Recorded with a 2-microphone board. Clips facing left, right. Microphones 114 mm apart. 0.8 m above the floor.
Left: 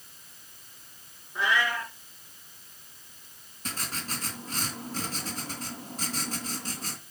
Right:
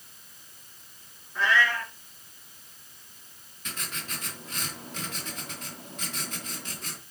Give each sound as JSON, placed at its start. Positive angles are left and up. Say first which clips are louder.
{"t": 1.4, "sound": "a cat meowing", "louder": "right 2 dB", "side_deg": 15, "distance_m": 5.0}
{"t": 3.6, "sound": "writing", "louder": "left 3 dB", "side_deg": 35, "distance_m": 2.5}